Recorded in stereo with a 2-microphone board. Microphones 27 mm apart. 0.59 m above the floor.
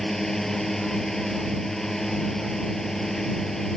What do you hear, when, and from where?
0.0 s a drone: 15° left (ahead or behind)